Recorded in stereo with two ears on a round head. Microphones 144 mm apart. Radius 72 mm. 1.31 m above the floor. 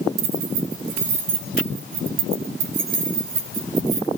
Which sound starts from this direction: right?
Keys jangling, at 0.2 s.